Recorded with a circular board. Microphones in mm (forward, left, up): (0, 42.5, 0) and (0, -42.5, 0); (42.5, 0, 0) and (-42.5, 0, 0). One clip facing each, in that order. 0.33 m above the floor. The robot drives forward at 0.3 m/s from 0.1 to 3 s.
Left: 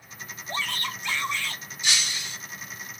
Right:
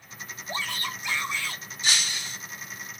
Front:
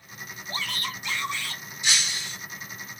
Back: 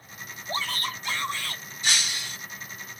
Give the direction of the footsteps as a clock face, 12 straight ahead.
No footsteps in this recording.